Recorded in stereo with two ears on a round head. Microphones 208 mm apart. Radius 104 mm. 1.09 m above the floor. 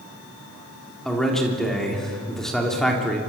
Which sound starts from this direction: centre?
A man speaking, at 1.1 s.